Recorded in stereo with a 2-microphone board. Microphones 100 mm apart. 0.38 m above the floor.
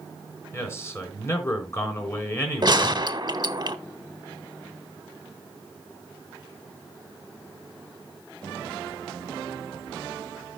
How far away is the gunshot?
About 0.9 m.